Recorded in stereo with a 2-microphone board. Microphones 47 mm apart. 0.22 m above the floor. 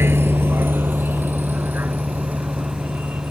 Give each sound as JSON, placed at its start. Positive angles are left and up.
{"t": 0.0, "sound": "a vehicle", "side_deg": -60}